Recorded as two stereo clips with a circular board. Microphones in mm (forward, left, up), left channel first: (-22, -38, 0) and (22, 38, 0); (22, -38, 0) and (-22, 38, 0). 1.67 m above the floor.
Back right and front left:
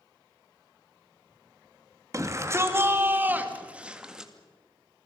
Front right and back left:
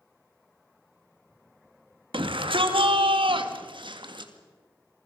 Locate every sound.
2.1 s a shout: 115° left, 2.5 m; by 4.3 s 145° left, 2.5 m